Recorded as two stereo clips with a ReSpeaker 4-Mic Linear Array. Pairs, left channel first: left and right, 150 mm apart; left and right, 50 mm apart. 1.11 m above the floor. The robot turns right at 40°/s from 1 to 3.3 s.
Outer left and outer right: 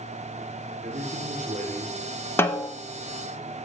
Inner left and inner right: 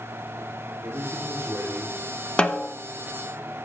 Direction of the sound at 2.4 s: 15° left (ahead or behind).